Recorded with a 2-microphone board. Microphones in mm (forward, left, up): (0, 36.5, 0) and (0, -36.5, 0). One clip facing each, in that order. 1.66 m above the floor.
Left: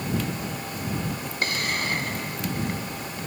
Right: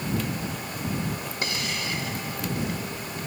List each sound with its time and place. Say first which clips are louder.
1.4 s a hiss: left 5 dB; 50° left (ahead or behind)